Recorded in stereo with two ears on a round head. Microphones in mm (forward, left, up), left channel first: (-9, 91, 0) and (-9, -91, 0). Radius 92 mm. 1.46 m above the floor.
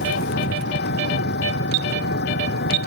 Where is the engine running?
55° left (ahead or behind).